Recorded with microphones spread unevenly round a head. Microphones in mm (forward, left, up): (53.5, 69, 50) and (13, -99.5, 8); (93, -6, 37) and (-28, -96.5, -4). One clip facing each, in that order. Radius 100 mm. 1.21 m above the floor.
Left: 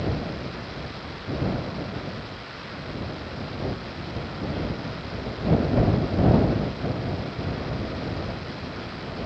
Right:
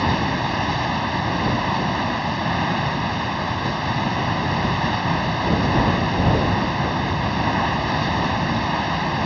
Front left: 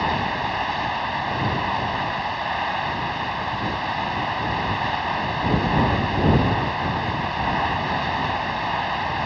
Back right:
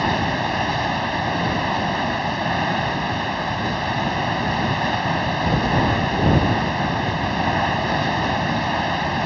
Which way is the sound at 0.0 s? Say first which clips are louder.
Right 7 dB, back right 3 dB; 95° right.